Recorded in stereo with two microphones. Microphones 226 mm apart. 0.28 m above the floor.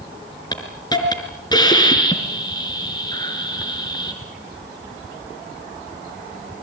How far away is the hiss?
About 5 m.